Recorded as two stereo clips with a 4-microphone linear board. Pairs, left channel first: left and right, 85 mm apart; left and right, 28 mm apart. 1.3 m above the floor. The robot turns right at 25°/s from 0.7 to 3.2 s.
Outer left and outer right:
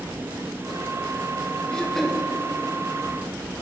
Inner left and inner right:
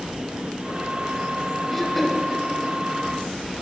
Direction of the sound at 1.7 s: 5° left (ahead or behind).